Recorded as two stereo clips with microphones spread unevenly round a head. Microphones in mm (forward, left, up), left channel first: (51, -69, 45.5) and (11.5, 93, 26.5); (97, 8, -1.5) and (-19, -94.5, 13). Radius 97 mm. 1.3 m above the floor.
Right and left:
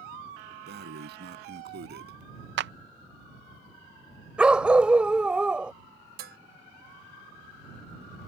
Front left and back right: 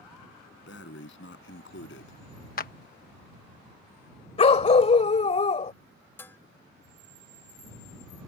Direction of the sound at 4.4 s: 15° left.